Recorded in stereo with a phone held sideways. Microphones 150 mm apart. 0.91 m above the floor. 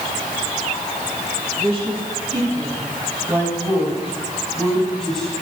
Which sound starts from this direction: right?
A woman speaking, at 1.6 s.